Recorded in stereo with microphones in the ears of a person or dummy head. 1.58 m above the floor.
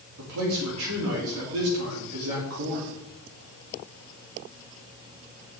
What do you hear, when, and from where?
0.2 s a man speaking: 75° right (ahead or behind), 3.5 m